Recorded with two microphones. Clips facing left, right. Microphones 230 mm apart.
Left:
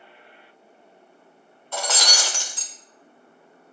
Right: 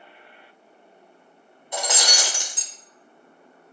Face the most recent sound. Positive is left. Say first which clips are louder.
# right 1 dB
turn(degrees=-15)  # may be behind; listen again after turning